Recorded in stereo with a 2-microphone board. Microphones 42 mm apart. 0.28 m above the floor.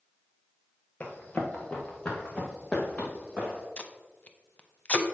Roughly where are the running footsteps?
Left.